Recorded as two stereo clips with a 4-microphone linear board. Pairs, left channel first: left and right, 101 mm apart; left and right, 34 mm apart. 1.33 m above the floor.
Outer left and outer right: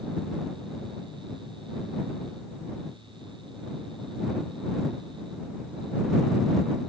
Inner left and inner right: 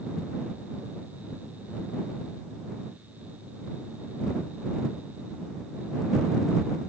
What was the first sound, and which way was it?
Only background noise.